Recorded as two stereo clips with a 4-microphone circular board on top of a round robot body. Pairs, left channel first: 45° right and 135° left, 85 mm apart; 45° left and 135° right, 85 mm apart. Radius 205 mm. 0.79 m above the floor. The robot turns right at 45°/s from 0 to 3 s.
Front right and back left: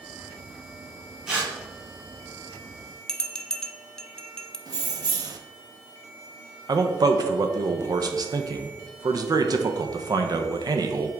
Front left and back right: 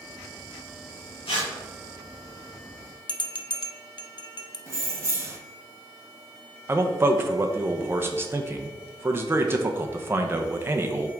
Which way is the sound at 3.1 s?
35° left.